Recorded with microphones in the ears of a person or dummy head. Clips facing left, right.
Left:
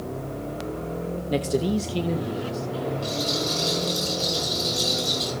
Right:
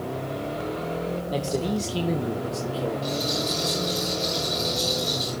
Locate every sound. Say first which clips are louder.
1.3 s a man speaking: left 4 dB; 30° left (ahead or behind), 1.0 m; by 4.0 s 55° right (ahead or behind), 2.5 m
3.0 s a rattle: even; 10° left (ahead or behind), 7.5 m